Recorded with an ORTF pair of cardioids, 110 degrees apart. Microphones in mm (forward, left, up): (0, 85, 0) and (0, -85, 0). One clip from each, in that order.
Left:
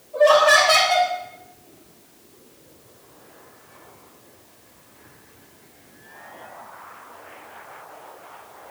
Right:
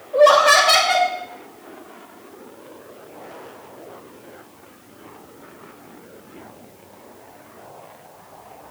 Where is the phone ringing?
No phone ringing in this recording.